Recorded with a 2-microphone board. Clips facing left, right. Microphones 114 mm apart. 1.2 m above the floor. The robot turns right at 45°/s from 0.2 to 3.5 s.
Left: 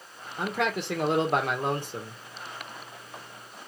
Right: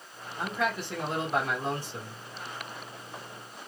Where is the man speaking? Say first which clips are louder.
Left 2 dB; 60° left, 1.3 m; by 2.2 s 145° left, 1.3 m.